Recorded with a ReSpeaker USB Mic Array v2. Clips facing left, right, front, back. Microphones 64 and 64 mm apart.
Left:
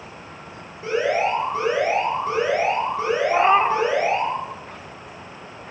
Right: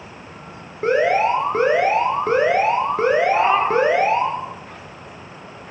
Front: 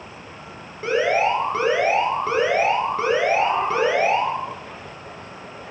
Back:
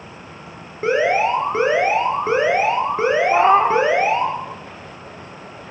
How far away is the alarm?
About 5.5 m.